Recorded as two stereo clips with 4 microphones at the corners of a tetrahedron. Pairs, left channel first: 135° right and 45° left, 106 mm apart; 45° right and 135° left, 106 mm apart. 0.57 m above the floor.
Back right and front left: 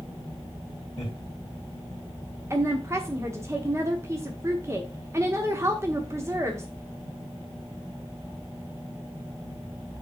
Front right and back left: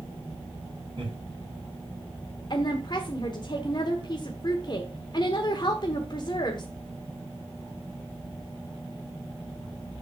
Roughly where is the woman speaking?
Ahead.